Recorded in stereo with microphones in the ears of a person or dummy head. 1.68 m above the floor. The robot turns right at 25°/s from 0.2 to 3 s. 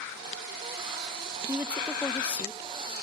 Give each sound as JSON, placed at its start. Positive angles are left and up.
{"t": 1.5, "sound": "a woman speaking", "azimuth_deg": -10, "distance_m": 0.8}